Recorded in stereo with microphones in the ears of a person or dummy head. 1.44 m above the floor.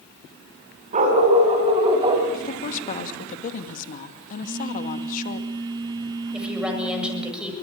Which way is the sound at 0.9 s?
40° right (ahead or behind).